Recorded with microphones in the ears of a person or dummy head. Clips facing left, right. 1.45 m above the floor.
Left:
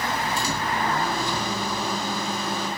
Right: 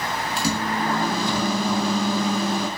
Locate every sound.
0.4 s a microwave: 65° right (ahead or behind), 9 m